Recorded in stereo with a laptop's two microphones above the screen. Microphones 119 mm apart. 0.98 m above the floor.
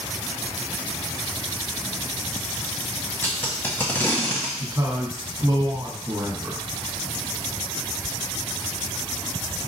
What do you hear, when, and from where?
3.2 s tape being pulled: 20° left (ahead or behind), 1.4 m
4.6 s a man speaking: 25° right (ahead or behind), 1.5 m